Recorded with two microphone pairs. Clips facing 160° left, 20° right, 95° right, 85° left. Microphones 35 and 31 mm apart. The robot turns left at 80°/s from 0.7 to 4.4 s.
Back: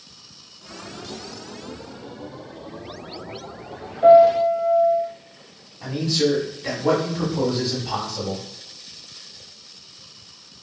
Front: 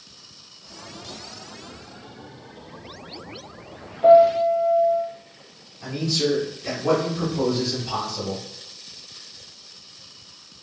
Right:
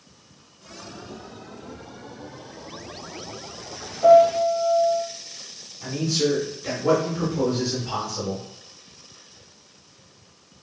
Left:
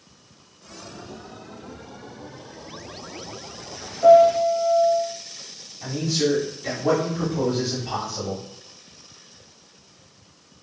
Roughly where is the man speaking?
Behind left.